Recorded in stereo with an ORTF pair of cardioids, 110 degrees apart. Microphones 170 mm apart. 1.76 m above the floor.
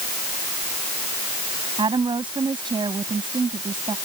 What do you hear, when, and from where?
1.8 s a woman speaking: 25° right